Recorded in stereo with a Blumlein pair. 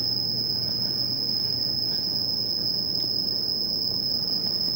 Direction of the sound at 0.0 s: 15° right.